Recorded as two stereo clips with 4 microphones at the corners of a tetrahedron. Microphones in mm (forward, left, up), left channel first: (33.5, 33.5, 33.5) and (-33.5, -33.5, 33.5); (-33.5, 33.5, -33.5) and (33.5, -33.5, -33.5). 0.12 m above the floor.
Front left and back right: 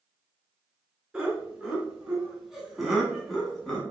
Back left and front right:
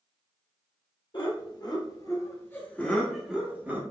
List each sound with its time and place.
1.1 s laughter: 145° left, 2 m; by 3.8 s 35° right, 1.5 m